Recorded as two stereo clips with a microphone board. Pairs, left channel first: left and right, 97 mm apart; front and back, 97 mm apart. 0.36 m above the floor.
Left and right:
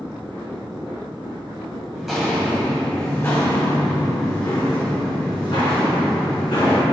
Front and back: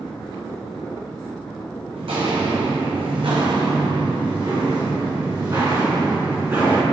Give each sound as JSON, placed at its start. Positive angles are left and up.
{"t": 1.9, "sound": "footsteps", "azimuth_deg": -175, "distance_m": 1.1}